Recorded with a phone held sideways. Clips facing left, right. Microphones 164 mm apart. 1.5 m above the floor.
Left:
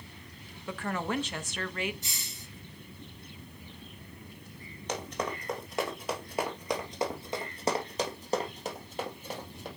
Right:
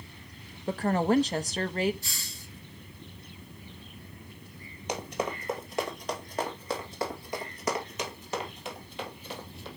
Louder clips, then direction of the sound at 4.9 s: Right 2 dB; 10° right (ahead or behind).